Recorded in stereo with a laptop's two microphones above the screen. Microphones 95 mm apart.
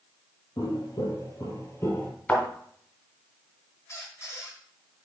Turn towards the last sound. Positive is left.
turn(degrees=35)  # may be behind; listen again after turning